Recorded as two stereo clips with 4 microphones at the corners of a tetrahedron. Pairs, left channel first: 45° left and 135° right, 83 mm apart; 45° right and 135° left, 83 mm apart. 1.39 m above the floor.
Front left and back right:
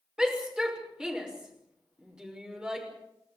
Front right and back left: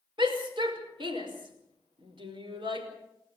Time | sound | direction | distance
0.2 | a shout | 145° left | 6 m